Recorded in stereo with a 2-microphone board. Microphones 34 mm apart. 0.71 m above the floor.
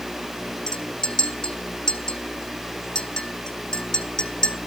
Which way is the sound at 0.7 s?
25° left (ahead or behind).